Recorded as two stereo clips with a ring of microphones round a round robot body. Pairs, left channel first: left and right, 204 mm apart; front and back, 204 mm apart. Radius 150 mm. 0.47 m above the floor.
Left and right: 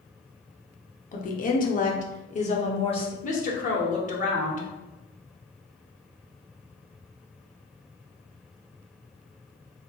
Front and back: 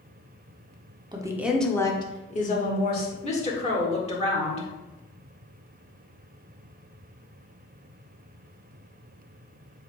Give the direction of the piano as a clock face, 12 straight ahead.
No piano in this recording.